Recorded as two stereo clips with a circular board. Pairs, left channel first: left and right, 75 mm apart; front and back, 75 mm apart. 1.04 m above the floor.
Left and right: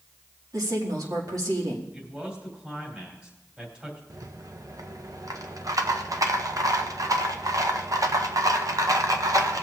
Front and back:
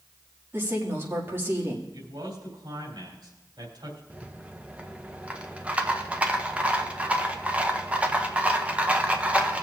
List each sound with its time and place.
0.5 s a woman speaking: 120° right, 1.9 m
1.9 s a man speaking: 165° right, 3 m
4.1 s a rattle: 110° right, 0.7 m